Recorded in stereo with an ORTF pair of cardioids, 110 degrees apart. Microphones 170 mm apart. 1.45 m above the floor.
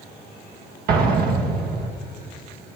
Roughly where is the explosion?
Ahead right.